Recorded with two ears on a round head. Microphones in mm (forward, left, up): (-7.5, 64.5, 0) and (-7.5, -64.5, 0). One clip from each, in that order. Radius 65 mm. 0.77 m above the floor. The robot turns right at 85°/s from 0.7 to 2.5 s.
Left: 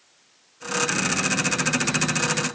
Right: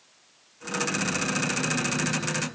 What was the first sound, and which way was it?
Only background noise.